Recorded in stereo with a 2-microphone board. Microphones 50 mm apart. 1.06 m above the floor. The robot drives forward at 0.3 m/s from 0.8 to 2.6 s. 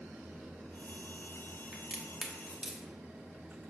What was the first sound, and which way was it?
A crack, 15° right (ahead or behind).